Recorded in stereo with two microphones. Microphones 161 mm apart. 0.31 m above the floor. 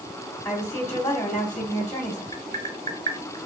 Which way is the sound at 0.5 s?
15° left (ahead or behind).